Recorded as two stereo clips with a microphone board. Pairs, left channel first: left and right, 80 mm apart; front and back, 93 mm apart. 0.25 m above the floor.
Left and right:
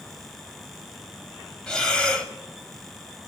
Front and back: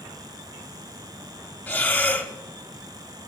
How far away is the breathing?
About 1.2 m.